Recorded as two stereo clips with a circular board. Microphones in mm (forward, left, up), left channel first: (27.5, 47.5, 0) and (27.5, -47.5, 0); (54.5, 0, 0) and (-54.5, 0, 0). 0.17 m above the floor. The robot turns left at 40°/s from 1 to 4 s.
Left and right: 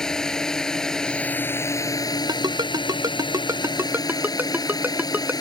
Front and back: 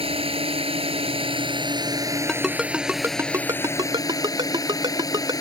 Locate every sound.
0.0 s a drone: 170° left; by 5.4 s 50° left
2.3 s a ringtone: 85° right; by 5.3 s 150° right